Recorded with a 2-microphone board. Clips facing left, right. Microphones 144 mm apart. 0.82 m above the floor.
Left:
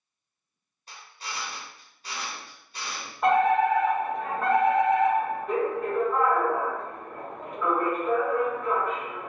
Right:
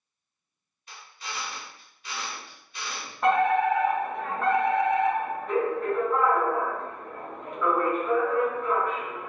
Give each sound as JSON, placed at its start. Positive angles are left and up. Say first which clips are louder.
{"t": 0.9, "sound": "a drill", "louder": "even", "side_deg": 35, "distance_m": 0.9}
{"t": 3.2, "sound": "a fire alarm", "louder": "left 1 dB", "side_deg": 5, "distance_m": 1.5}